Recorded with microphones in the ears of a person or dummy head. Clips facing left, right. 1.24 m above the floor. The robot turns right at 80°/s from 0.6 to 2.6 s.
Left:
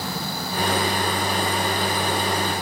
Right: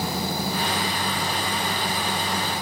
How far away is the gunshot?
No gunshot in this recording.